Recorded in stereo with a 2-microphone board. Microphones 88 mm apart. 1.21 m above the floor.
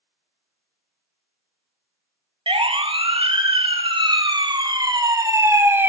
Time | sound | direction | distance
2.5 | a siren | 80° right | 2 m